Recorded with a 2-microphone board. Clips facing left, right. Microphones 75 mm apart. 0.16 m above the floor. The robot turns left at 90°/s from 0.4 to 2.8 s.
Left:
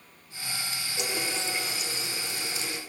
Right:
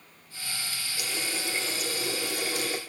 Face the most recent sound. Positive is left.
turn(degrees=-135)